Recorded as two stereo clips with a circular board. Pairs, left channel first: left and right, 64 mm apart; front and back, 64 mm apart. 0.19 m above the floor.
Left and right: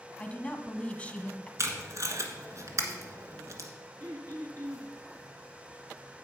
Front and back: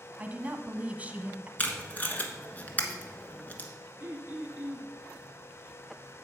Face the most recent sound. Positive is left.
turn(degrees=-120)